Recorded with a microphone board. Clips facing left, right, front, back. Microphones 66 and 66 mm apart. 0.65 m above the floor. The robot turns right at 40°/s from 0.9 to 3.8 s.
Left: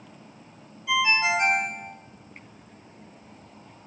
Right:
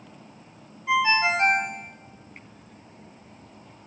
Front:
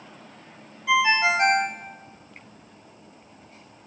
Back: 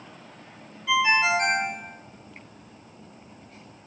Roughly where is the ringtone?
Ahead right.